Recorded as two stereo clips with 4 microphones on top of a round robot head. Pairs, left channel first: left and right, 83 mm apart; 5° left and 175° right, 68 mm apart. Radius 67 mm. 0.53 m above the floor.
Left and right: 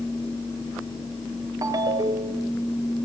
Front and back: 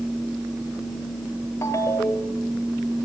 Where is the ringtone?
50° right, 1.9 m.